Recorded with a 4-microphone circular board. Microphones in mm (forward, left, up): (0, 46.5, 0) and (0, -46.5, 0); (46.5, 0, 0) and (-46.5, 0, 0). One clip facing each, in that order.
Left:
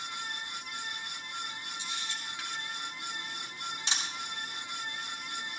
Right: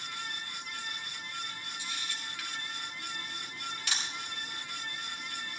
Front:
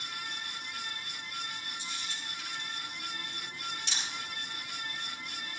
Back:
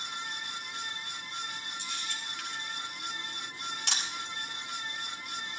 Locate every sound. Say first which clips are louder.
1.8 s a camera shutter: left 1 dB, back 2 dB; 155° left, 3.5 m